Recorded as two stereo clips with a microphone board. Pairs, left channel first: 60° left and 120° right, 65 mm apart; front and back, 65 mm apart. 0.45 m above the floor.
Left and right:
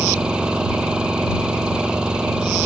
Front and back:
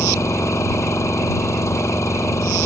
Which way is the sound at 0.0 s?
45° right.